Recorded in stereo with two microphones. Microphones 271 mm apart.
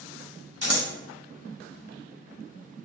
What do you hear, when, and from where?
0.6 s scissors: 65° left (ahead or behind), 0.7 m